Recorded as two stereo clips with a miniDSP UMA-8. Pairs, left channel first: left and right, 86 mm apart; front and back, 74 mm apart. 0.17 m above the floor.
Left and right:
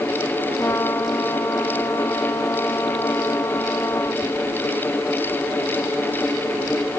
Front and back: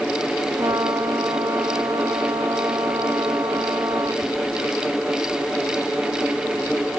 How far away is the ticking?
I don't hear ticking.